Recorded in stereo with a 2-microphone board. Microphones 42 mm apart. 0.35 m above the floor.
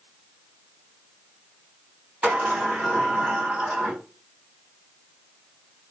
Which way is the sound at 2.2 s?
25° right (ahead or behind).